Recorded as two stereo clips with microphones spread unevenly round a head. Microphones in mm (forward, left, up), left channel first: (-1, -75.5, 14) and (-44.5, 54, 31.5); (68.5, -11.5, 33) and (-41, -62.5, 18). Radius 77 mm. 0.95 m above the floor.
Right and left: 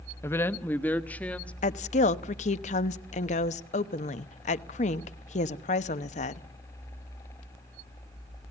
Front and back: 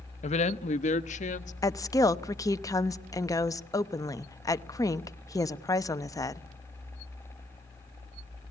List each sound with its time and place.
0.2 s a woman speaking: straight ahead, 0.9 m; by 1.5 s 10° left, 1.6 m
1.6 s a woman speaking: 40° right, 1.0 m